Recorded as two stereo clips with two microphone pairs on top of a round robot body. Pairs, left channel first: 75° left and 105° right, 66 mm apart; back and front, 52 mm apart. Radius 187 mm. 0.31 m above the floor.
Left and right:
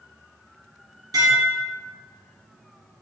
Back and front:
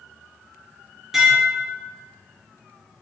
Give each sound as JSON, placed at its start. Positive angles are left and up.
{"t": 1.1, "sound": "dishes clattering", "azimuth_deg": -80, "distance_m": 3.5}